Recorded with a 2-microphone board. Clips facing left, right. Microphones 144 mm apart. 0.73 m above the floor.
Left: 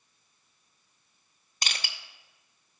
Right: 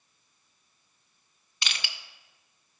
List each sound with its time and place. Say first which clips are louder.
1.6 s crushing: left 1 dB; 40° left (ahead or behind), 0.7 m